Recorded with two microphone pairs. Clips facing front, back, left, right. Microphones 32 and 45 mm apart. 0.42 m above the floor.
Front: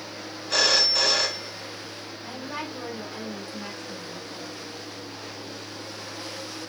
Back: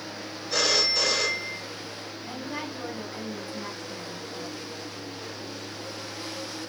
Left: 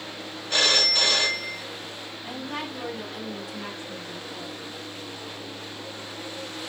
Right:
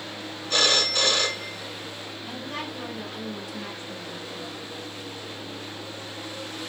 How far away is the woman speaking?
About 2 m.